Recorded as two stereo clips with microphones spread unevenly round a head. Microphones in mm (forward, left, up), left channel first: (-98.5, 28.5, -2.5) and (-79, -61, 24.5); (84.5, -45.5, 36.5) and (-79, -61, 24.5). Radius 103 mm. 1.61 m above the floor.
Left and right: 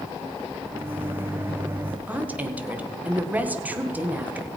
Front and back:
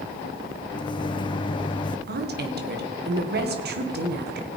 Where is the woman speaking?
155° right, 1.9 m.